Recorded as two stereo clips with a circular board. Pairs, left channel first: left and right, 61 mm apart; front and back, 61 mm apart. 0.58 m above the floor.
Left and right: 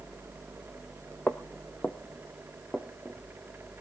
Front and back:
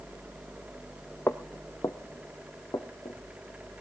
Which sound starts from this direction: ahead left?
Footsteps, at 1.3 s.